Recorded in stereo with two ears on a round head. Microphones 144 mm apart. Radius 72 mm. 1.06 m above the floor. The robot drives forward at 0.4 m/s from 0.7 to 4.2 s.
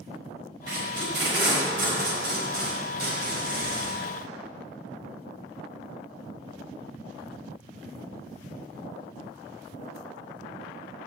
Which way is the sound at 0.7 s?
75° right (ahead or behind).